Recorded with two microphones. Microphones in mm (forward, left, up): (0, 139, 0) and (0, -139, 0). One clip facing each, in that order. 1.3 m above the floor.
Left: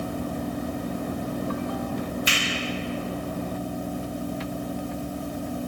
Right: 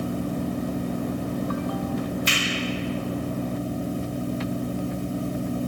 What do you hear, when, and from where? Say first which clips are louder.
2.3 s a finger snap: right 1 dB; 10° left (ahead or behind), 1.7 m